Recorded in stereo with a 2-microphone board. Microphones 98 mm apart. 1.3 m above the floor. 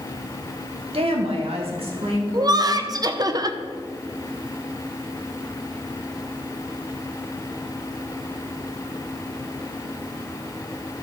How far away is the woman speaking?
About 1.6 m.